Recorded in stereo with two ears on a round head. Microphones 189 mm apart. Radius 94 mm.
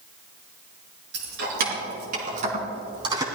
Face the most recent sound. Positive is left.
turn(degrees=-20)  # may be behind; listen again after turning